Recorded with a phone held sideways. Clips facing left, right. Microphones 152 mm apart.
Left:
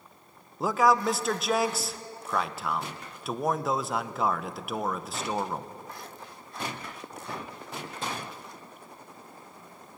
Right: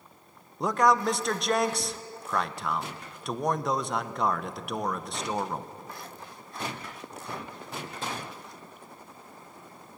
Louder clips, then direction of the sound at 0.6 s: Even; 5° left (ahead or behind).